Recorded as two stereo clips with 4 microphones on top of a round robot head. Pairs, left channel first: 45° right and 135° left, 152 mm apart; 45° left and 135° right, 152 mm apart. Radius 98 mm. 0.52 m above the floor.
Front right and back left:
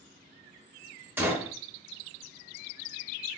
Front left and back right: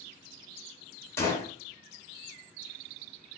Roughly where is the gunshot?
Left.